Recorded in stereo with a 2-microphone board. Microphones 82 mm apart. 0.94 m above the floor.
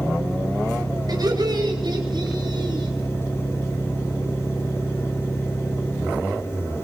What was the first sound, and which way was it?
Laughter, 55° right (ahead or behind).